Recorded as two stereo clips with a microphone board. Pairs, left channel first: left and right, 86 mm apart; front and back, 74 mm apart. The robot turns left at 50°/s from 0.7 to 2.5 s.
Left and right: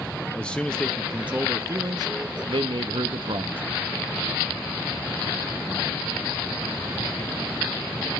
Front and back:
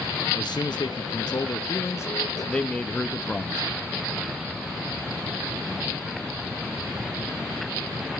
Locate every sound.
0.3 s a man speaking: 10° left, 0.9 m; by 3.6 s 80° right, 0.9 m